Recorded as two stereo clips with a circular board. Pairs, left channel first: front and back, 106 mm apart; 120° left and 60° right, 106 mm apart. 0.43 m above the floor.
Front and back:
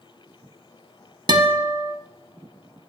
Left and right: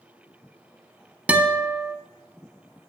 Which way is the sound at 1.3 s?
135° right.